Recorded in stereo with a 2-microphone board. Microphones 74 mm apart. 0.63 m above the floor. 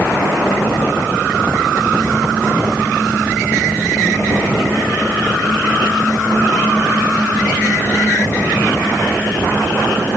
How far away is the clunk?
I don't hear a clunk.